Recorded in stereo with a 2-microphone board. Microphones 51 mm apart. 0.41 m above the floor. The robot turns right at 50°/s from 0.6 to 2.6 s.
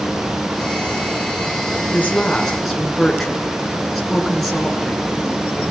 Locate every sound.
1.9 s a woman speaking: 145° left, 6 m; by 5.6 s straight behind, 6 m